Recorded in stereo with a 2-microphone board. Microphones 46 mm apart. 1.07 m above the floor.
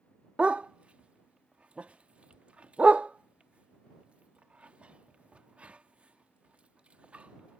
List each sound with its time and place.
0.4 s a dog barking: 30° right (ahead or behind)